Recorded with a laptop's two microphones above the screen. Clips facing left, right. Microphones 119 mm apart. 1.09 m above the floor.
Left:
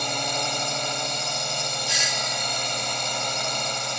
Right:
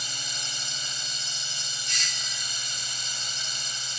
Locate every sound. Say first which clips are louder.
0.0 s a drone: left 15 dB; 60° left (ahead or behind)
1.9 s a doorbell: left 11 dB; 45° right (ahead or behind)